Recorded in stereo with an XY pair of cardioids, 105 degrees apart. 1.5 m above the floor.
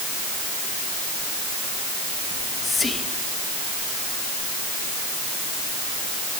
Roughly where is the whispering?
Ahead left.